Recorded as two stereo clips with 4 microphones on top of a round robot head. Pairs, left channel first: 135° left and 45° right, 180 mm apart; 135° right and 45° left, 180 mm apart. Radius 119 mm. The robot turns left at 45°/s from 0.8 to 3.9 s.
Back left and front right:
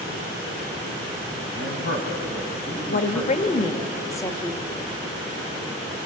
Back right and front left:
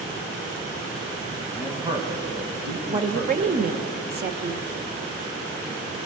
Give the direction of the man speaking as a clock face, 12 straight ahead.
8 o'clock.